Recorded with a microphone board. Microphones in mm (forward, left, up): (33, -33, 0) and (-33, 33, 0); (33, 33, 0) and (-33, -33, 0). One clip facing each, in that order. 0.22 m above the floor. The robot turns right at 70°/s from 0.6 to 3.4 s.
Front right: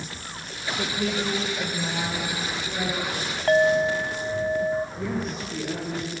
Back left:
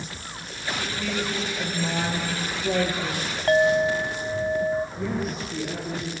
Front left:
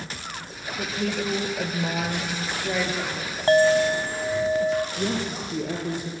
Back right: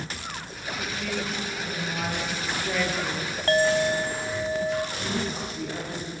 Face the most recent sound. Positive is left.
turn(degrees=50)